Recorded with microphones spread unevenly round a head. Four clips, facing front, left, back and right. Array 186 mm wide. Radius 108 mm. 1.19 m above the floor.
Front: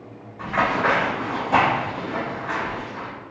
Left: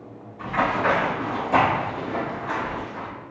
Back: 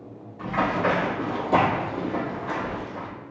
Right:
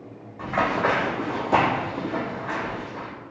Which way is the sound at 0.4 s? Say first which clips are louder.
Even, front 2 dB; 65° right.